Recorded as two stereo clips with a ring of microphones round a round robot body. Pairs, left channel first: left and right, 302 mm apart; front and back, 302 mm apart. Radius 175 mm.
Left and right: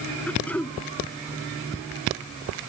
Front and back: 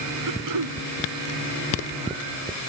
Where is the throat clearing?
175° left.